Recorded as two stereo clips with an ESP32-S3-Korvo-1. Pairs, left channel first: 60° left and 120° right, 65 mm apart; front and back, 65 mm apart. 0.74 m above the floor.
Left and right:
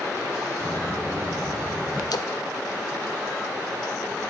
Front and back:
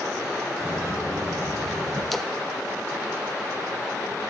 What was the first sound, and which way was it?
Footsteps, 135° left.